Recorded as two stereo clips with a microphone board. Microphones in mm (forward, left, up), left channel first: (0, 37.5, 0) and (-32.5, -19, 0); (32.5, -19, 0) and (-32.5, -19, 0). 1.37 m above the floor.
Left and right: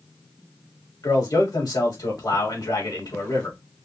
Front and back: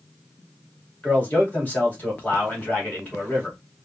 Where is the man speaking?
65° left, 2.5 m.